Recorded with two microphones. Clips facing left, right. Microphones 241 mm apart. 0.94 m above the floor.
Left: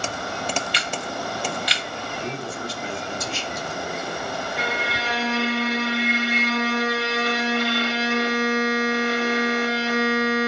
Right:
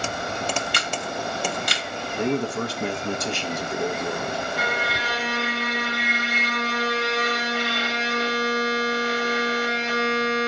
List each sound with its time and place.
0.7 s a camera shutter: 50° right (ahead or behind), 0.6 m
2.1 s a man speaking: 65° right (ahead or behind), 0.7 m
4.6 s a violin: 65° left (ahead or behind), 1.6 m